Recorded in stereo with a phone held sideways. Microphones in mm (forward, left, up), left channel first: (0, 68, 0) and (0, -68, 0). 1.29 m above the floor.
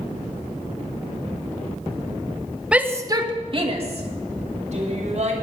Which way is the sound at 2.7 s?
10° right (ahead or behind).